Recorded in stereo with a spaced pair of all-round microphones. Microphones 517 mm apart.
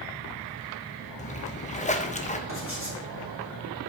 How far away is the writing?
About 2.5 m.